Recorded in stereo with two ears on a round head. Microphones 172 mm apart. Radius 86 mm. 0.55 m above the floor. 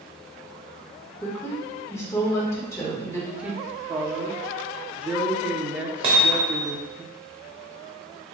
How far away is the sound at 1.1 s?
About 1.3 m.